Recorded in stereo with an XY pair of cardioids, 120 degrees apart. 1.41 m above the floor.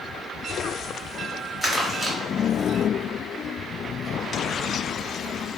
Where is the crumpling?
Straight ahead, 1.4 m.